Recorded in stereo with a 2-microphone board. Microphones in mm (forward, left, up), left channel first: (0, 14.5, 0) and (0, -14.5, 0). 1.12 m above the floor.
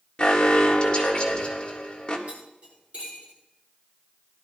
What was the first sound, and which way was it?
An alarm, 30° left (ahead or behind).